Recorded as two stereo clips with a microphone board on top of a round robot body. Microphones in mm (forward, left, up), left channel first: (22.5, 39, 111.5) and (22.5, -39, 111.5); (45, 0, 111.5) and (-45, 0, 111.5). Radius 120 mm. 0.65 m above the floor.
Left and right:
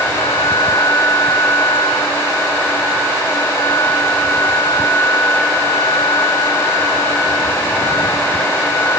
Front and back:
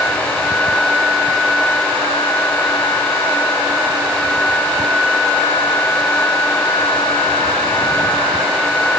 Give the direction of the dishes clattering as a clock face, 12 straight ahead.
No dishes clattering in this recording.